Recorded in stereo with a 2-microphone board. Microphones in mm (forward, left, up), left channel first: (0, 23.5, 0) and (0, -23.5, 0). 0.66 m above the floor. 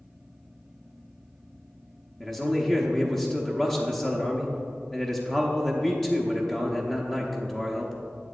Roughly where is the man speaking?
Centre.